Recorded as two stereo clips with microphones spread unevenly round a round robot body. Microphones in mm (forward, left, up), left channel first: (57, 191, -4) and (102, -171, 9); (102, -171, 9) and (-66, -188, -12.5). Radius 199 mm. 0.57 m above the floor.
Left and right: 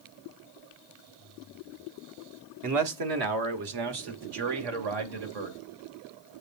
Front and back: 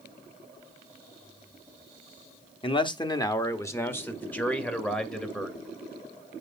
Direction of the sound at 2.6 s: 55° right.